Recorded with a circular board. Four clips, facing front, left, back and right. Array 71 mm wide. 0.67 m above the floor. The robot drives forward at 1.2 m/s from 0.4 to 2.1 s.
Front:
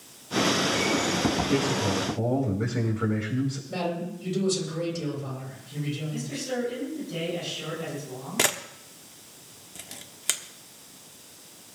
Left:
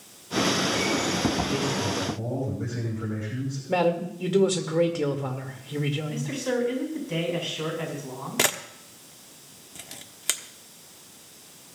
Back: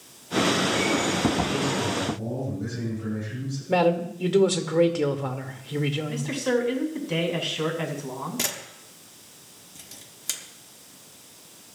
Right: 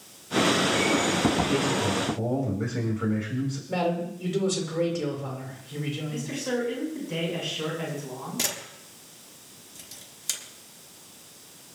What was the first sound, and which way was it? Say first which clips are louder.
A man speaking: right 2 dB, front 1 dB; 25° right.